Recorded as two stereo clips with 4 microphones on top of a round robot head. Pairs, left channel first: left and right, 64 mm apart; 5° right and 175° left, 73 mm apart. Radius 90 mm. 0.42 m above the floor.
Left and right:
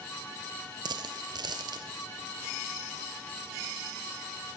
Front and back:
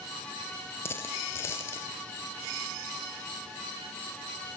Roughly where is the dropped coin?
Ahead right.